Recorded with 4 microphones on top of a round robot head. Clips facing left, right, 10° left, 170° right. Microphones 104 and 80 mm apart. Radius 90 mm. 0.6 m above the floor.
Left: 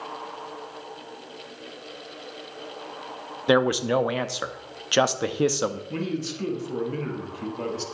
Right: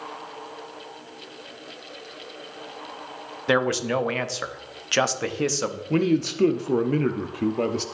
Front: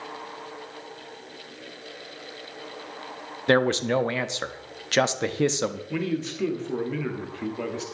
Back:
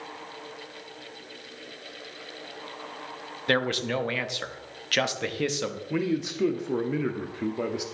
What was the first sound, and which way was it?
A man speaking, 35° left.